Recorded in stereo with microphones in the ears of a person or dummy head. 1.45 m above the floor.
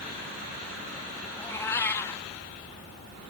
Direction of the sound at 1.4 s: 20° left (ahead or behind).